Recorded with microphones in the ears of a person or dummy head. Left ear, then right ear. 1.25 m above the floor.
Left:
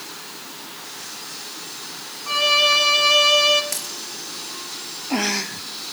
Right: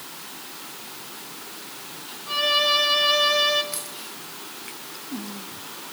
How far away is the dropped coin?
About 3 m.